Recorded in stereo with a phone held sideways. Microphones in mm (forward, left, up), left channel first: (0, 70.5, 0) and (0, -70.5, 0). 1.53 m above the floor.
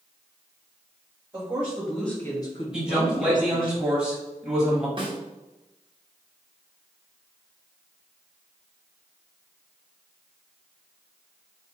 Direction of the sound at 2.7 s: 5° right (ahead or behind).